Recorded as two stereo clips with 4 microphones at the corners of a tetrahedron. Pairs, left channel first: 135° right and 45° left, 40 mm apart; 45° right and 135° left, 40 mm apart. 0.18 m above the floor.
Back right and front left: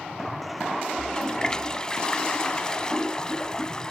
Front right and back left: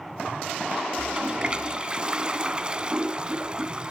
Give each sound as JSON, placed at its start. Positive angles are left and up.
{"t": 1.0, "sound": "a toilet flushing", "azimuth_deg": 175, "distance_m": 0.7}